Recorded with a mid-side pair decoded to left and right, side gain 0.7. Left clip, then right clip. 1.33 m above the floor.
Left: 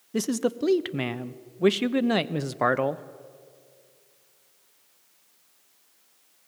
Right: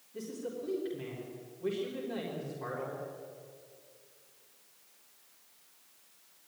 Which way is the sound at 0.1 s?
65° left.